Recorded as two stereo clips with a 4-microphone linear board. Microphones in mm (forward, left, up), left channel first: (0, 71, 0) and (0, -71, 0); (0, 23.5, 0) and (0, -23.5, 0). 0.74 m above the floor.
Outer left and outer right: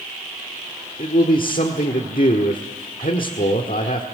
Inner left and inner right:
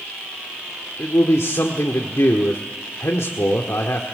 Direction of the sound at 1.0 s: 75° left (ahead or behind).